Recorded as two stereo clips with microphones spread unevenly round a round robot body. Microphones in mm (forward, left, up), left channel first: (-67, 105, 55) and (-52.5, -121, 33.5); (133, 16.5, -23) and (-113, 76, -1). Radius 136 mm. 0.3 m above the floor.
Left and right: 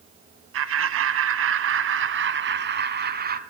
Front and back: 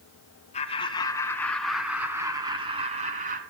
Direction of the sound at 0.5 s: 80° right.